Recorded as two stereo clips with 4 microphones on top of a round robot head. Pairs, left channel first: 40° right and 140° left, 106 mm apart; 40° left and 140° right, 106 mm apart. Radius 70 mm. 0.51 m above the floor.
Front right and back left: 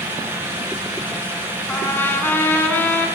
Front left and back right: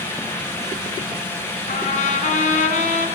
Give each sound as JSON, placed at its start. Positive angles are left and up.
{"t": 1.7, "sound": "a trumpet", "azimuth_deg": 30, "distance_m": 4.5}